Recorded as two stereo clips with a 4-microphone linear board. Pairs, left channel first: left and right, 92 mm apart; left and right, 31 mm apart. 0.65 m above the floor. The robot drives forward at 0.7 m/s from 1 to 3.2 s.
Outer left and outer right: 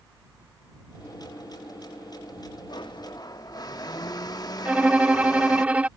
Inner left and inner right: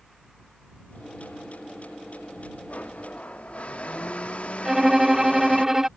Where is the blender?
55° left (ahead or behind); by 5.7 s 45° left (ahead or behind).